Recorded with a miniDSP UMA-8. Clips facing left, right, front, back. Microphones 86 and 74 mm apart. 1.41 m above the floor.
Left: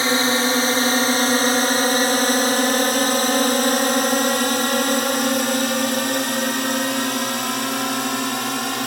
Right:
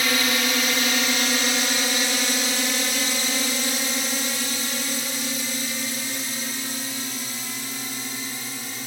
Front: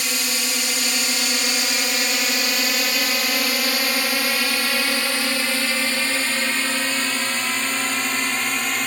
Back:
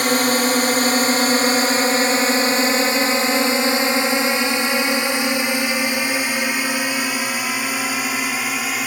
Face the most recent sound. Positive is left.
turn(degrees=95)